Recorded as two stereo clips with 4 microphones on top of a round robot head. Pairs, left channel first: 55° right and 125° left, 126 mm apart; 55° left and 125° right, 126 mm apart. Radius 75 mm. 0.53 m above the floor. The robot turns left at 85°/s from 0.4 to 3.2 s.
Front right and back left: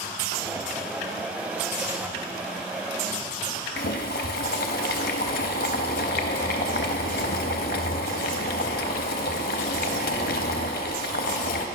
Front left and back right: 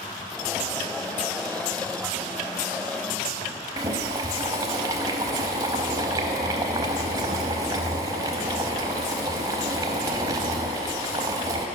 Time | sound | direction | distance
3.8 | boiling | 65° right | 0.6 m